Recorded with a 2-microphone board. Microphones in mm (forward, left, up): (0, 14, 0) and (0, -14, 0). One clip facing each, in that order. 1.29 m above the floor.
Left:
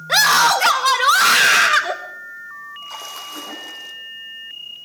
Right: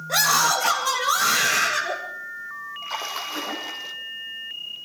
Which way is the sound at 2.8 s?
25° right (ahead or behind).